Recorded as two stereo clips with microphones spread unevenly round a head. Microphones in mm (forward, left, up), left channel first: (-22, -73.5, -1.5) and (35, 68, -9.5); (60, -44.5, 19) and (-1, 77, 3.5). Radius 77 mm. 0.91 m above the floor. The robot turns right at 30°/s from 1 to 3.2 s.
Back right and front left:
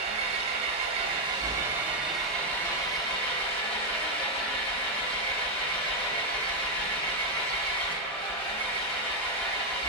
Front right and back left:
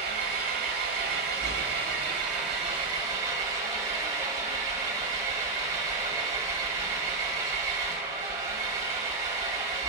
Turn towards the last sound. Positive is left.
turn(degrees=-170)